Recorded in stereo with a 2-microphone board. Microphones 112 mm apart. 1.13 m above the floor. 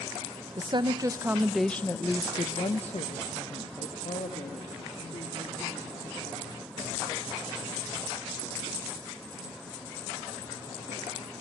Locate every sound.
0.6 s a woman speaking: 45° right (ahead or behind), 0.8 m; by 6.7 s 85° left, 3 m